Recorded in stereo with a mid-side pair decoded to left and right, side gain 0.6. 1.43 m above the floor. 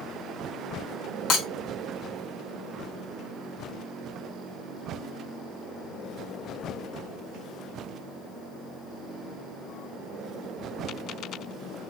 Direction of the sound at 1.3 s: 60° left.